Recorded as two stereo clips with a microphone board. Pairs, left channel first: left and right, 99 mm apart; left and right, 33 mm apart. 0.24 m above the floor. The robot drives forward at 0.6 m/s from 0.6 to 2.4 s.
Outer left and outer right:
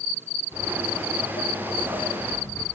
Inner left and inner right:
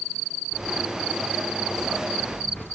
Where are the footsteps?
75° left (ahead or behind), 1.9 m; by 2.7 s 25° left (ahead or behind), 1.5 m.